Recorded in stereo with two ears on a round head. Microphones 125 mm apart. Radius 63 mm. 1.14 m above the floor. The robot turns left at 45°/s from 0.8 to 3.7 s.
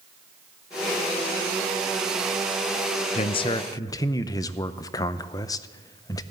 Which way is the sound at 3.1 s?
45° left (ahead or behind).